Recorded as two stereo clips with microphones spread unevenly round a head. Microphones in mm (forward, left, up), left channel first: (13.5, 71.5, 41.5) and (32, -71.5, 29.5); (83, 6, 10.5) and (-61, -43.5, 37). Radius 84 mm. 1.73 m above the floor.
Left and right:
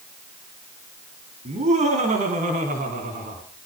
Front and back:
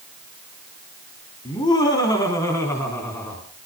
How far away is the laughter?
About 4 m.